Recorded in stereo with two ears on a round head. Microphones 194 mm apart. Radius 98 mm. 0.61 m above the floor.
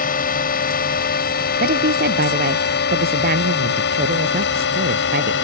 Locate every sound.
0.0 s a drone: 45° left (ahead or behind); by 5.4 s 60° left (ahead or behind)
1.6 s a woman speaking: 50° right (ahead or behind)